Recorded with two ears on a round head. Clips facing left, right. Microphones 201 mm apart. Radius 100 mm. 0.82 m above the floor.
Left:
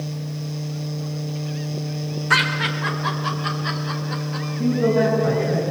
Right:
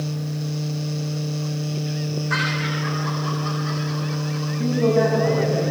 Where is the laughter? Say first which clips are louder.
Even; 75° left (ahead or behind), 3.5 m.